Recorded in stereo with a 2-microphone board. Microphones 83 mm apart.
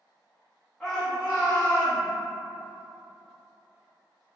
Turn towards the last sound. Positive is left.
turn(degrees=-45)  # may be behind; listen again after turning